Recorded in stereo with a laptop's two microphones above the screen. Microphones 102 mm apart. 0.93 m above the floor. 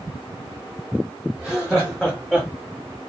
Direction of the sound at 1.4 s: 5° right (ahead or behind).